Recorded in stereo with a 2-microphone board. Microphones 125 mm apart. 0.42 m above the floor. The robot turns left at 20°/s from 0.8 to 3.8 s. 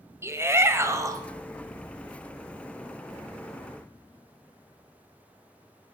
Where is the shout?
20° right (ahead or behind), 1.7 m; by 1.2 s 30° right (ahead or behind), 1.7 m.